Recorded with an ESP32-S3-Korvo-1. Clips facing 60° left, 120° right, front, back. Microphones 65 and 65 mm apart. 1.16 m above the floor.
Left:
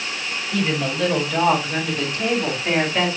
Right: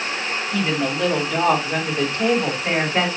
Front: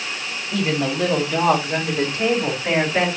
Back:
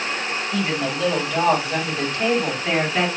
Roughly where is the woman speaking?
Ahead right.